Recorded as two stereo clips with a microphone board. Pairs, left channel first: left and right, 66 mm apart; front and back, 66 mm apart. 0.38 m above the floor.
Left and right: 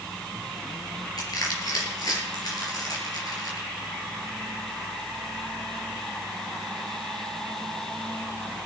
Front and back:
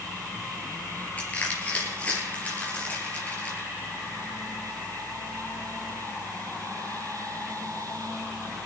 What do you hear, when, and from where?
1.2 s crushing: 65° left, 4.5 m